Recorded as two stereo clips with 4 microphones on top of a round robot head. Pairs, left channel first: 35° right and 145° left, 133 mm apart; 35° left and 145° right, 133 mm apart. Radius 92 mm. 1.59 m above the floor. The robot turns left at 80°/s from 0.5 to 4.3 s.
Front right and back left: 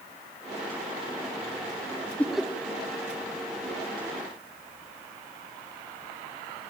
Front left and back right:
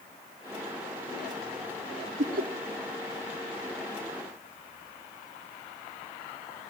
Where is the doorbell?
No doorbell in this recording.